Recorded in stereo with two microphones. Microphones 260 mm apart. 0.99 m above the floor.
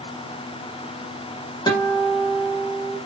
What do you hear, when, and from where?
1.7 s a guitar: 15° left (ahead or behind), 1.5 m